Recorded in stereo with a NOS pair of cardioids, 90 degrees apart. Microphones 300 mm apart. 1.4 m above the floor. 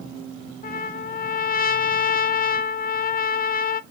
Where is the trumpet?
30° left, 0.5 m.